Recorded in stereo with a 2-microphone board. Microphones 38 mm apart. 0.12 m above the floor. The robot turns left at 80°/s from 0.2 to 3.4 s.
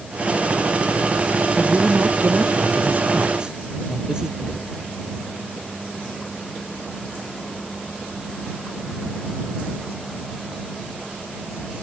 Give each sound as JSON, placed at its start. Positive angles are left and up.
{"t": 1.6, "sound": "a man speaking", "azimuth_deg": -10}
{"t": 4.4, "sound": "knocking", "side_deg": -15}